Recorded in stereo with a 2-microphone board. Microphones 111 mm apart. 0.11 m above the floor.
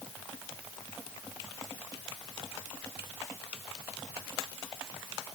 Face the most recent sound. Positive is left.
No sound to turn to.